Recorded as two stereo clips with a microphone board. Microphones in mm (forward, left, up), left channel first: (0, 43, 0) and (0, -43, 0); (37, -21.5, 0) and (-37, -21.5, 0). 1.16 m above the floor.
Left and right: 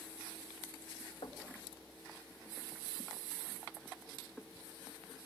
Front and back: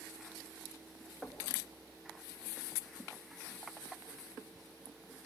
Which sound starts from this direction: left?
Knocking, at 1.2 s.